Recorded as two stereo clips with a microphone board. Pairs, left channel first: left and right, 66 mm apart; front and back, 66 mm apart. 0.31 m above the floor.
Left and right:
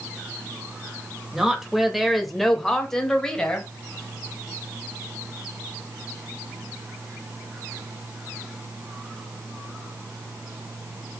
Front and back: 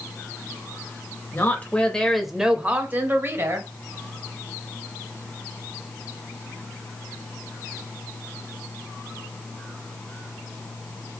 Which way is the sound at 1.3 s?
10° right.